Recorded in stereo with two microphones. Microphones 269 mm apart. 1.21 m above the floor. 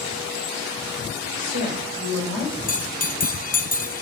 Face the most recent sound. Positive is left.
turn(degrees=30)  # may be behind; listen again after turning